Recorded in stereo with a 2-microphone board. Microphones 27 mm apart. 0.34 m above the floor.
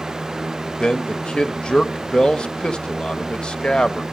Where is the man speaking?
35° left (ahead or behind), 1.0 m.